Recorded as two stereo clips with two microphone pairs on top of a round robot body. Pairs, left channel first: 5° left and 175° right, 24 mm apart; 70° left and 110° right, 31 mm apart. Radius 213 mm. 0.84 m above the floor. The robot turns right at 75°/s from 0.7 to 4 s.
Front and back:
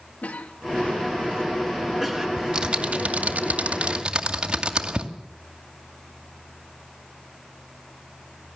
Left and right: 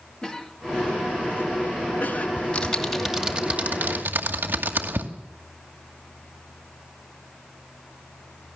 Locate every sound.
0.2 s a cough: 10° left, 3 m; by 2.3 s 125° left, 3 m
2.4 s typing on a keyboard: 120° left, 2 m; by 5.1 s 120° right, 2 m